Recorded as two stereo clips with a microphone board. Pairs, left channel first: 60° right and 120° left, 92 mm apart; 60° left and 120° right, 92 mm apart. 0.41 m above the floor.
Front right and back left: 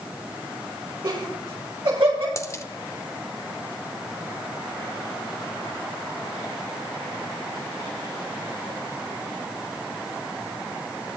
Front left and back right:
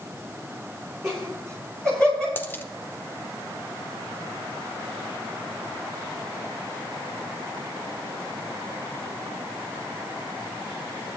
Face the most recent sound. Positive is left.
turn(degrees=-5)